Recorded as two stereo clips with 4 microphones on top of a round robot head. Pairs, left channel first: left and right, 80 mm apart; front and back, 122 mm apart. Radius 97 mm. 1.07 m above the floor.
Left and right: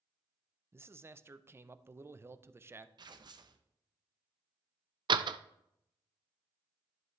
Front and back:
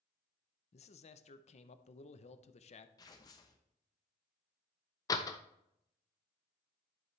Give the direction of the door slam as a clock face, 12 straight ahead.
2 o'clock.